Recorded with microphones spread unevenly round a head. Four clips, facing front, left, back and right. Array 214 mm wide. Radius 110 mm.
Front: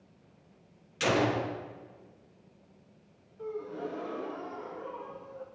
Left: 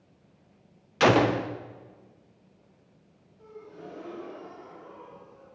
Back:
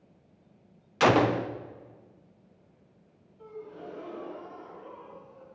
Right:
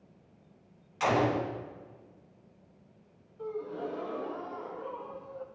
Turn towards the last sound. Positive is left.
turn(degrees=-45)